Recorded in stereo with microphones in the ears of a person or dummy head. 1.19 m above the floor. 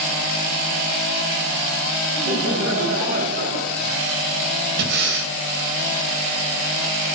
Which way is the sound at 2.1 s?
55° right (ahead or behind).